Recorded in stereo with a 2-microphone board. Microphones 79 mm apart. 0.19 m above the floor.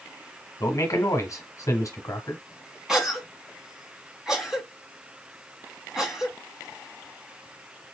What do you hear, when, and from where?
0.6 s a man speaking: 45° left (ahead or behind), 1.3 m
2.9 s a cough: 5° right (ahead or behind), 1.7 m